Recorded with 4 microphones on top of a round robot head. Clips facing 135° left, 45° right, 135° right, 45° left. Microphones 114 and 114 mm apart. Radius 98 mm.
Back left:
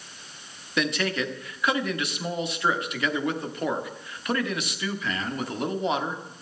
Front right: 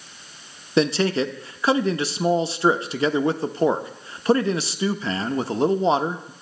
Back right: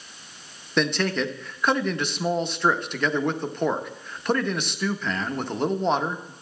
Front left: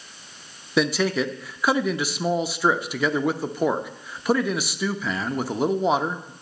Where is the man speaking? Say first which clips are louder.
Front right 7 dB, front left 2 dB; 35° right, 0.8 m.